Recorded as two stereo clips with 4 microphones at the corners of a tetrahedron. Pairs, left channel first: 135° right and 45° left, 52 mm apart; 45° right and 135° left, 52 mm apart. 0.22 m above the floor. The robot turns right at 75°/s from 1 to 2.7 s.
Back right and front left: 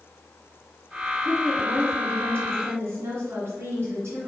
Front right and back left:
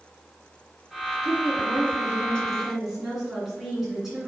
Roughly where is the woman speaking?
Ahead right.